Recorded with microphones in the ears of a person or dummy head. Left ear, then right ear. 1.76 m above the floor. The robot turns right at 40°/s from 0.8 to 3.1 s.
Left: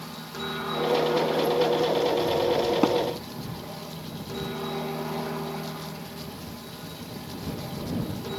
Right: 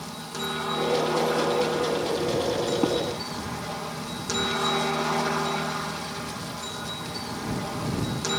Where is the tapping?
50° left (ahead or behind); by 3.0 s 55° left (ahead or behind).